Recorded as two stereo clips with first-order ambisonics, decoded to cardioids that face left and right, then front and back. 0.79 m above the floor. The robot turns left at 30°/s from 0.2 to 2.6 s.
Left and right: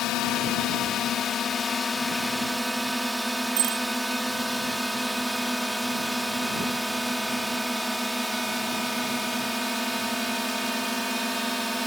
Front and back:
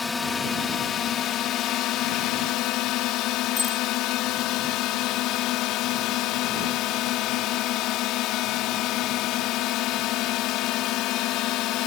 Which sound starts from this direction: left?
A drone, at 0.0 s.